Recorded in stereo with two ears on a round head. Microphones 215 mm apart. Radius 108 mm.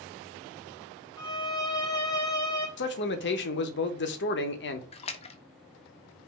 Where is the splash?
25° left (ahead or behind), 0.5 m.